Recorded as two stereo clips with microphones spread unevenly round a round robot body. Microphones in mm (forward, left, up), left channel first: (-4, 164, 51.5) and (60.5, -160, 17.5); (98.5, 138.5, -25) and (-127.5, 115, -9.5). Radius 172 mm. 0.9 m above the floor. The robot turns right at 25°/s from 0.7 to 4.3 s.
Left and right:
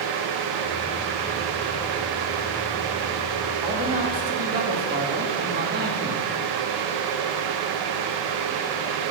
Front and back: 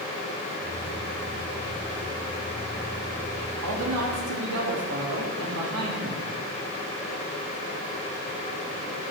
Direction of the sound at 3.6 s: 155° right.